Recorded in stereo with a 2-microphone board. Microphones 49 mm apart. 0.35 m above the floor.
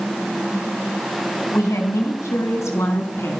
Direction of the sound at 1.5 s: 65° left (ahead or behind).